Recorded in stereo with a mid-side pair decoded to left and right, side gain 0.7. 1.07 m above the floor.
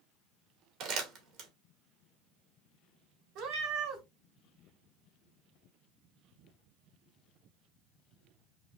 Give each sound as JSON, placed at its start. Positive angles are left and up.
{"t": 0.8, "sound": "crumpling", "azimuth_deg": -60, "distance_m": 1.9}
{"t": 3.4, "sound": "a cat meowing", "azimuth_deg": -70, "distance_m": 1.9}